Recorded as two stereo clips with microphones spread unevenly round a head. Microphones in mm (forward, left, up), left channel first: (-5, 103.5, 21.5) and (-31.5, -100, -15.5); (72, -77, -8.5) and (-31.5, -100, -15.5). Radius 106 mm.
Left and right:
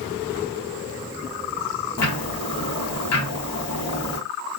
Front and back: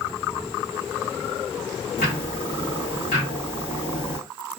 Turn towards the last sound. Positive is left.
turn(degrees=60)